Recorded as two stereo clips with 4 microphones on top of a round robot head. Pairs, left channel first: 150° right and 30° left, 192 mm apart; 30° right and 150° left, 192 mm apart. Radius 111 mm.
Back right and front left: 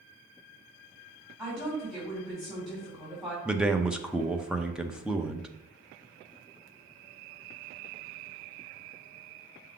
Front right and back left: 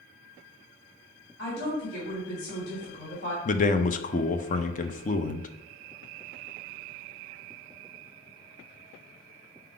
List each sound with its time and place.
1.4 s a woman speaking: 50° right, 3 m
3.5 s a man speaking: 55° right, 0.7 m